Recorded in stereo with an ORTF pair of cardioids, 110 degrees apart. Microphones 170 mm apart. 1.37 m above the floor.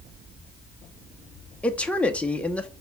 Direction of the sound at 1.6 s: 5° left.